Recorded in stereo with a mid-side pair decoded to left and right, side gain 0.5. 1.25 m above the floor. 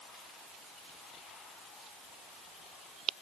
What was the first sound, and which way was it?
Only background noise.